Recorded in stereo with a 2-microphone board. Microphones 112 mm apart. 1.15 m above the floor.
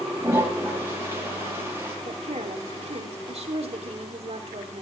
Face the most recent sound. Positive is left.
turn(degrees=-70)  # may be behind; listen again after turning